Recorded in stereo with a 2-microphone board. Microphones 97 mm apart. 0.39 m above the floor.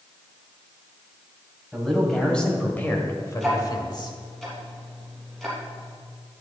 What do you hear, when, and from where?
1.7 s a man speaking: centre (ahead or behind), 2.5 m; by 4.2 s 50° left (ahead or behind), 1.7 m
3.4 s ticking: centre (ahead or behind), 3 m